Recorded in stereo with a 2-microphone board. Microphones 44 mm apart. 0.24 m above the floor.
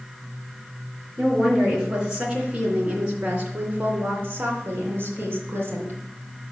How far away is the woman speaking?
About 3.5 m.